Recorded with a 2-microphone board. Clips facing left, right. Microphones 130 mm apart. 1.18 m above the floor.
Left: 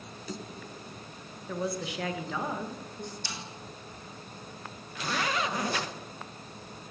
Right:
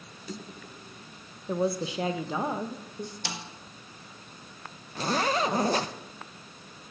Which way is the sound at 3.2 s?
80° right.